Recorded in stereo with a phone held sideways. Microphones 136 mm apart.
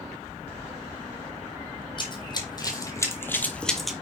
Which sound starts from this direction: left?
Running footsteps, at 2.0 s.